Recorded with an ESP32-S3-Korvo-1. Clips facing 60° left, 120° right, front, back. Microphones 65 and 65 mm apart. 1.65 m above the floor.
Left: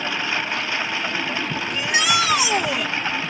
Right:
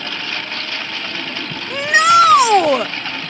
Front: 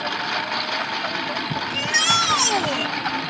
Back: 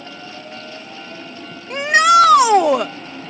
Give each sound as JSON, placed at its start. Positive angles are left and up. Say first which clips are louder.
{"t": 0.0, "sound": "a lawn mower", "louder": "left 2 dB, front 9 dB", "azimuth_deg": -15}
{"t": 1.7, "sound": "a shout", "louder": "right 11 dB, back 11 dB", "azimuth_deg": -150}